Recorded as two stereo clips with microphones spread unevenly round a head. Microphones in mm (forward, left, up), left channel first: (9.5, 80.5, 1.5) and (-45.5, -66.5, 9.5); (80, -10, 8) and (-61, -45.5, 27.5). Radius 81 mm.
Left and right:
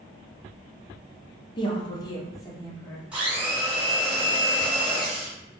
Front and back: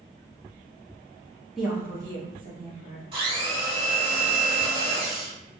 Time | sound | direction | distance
1.6 | a woman speaking | 95° left | 0.5 m
3.1 | a blender | 175° left | 1.1 m